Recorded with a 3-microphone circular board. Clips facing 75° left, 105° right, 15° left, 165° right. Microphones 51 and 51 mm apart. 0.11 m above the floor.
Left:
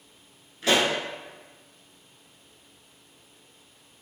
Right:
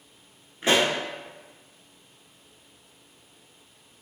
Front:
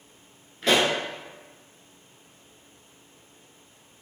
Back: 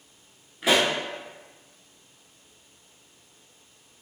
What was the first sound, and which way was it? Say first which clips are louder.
A pop: right 1 dB, even; 100° right.